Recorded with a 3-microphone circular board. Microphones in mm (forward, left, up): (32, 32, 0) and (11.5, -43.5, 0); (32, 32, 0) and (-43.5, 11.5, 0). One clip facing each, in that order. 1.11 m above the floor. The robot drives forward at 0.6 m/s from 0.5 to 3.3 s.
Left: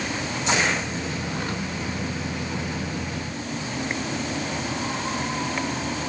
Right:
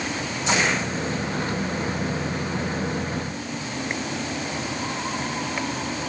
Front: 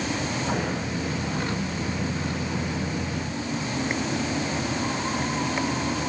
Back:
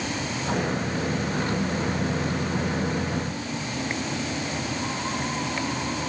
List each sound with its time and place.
Only background noise.